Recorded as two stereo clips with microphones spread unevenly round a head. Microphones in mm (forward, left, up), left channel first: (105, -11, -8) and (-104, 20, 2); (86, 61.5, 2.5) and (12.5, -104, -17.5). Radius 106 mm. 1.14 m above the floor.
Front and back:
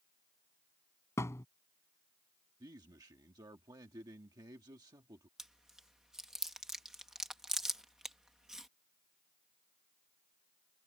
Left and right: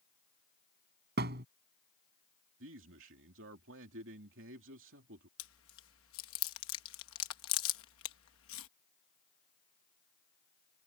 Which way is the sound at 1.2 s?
85° right.